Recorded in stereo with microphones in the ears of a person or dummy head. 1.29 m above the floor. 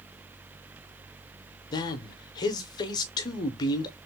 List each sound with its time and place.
1.7 s a man speaking: 25° left (ahead or behind), 0.6 m